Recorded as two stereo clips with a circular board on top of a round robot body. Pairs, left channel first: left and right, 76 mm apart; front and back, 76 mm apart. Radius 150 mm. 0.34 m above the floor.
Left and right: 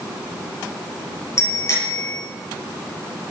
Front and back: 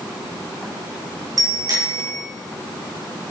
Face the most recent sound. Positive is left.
turn(degrees=140)